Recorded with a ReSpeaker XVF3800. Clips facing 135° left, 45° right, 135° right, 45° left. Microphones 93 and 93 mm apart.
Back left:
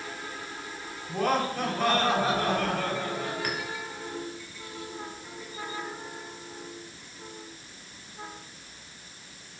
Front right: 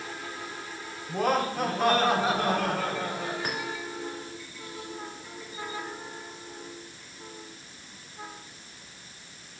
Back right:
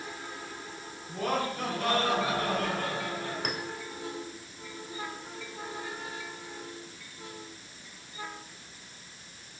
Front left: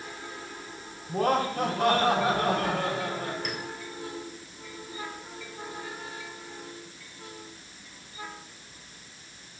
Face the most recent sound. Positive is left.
turn(degrees=-110)